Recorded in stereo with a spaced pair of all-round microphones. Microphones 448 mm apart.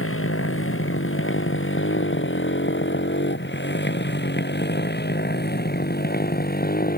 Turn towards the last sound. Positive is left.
turn(degrees=20)  # may be behind; listen again after turning